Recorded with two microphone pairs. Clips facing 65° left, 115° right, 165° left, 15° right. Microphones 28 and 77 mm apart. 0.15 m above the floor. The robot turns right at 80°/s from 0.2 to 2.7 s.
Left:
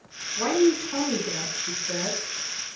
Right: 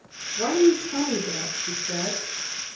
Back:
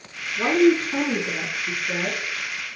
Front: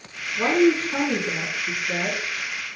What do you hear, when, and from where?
0.4 s a woman speaking: 45° left, 1.3 m; by 2.2 s 170° right, 1.3 m